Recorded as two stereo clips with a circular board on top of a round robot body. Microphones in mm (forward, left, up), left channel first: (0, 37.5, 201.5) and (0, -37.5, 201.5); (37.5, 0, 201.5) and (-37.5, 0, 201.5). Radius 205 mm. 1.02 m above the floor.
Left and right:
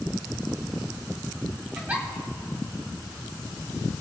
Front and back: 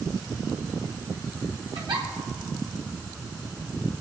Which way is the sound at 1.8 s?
160° right.